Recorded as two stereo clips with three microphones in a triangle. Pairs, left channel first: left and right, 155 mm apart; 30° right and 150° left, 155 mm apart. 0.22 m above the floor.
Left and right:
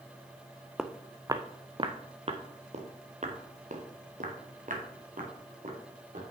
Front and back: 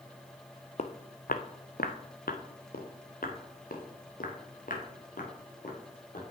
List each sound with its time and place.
0.8 s footsteps: straight ahead, 0.7 m; by 6.2 s 60° right, 3.5 m